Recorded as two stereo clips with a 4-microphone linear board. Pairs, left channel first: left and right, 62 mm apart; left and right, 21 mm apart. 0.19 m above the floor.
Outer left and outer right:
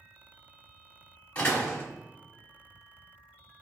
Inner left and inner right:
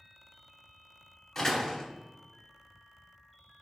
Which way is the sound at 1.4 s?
20° left (ahead or behind).